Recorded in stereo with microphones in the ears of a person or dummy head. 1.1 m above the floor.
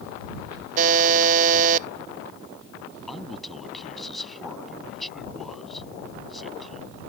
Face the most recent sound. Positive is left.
turn(degrees=-5)  # may be behind; listen again after turning